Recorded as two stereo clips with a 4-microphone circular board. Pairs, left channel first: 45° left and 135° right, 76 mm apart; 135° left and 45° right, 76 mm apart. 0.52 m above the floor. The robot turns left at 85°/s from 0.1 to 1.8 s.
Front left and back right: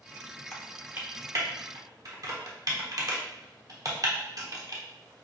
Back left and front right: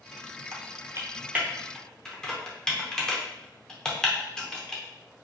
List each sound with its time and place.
0.5 s typing on a keyboard: 35° right, 1.0 m; by 4.8 s 145° right, 1.0 m